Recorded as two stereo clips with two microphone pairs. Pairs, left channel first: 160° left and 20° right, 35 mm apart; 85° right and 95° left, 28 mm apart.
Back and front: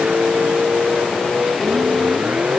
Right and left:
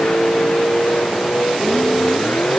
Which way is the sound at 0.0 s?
65° right.